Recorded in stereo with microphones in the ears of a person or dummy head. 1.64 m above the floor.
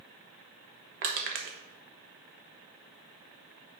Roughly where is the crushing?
Right.